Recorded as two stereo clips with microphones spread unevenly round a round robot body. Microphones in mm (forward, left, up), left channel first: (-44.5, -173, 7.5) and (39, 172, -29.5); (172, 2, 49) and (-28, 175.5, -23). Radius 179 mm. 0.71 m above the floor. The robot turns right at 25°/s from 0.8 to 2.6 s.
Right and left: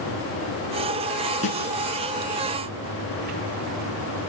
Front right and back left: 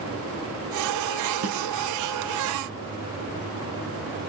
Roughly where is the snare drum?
Behind.